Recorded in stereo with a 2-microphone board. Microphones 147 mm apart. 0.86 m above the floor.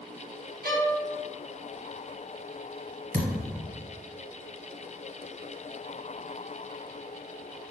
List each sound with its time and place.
0.6 s a violin: 85° right, 0.9 m
3.1 s a thud: 60° right (ahead or behind), 1.2 m